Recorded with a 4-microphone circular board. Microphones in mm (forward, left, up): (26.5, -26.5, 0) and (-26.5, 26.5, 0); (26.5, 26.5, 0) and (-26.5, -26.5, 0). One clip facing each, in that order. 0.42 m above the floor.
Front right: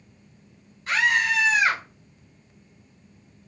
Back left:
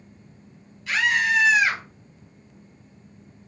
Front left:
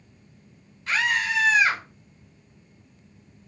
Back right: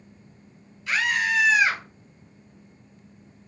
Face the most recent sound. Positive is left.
turn(degrees=5)